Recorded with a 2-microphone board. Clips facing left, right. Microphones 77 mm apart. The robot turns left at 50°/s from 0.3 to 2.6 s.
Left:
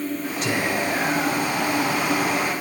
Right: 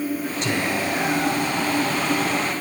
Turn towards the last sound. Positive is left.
turn(degrees=65)